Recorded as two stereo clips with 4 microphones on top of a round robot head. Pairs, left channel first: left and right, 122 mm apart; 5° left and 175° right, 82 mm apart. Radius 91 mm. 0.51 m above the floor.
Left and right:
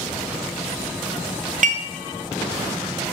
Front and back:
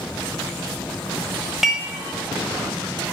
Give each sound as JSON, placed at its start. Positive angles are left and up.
{"t": 1.6, "sound": "dishes clattering", "azimuth_deg": -90, "distance_m": 1.9}